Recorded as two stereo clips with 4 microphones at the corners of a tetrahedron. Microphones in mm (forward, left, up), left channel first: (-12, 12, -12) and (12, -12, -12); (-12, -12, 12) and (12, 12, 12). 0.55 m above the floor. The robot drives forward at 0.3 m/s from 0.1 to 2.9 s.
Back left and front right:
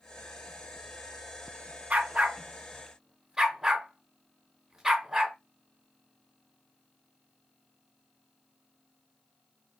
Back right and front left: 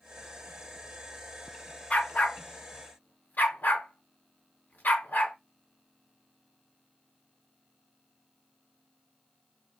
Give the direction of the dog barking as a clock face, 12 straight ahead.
3 o'clock.